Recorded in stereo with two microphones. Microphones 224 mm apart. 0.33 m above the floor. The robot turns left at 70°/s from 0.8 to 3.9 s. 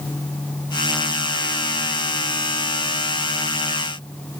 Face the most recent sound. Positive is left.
No sound to turn to.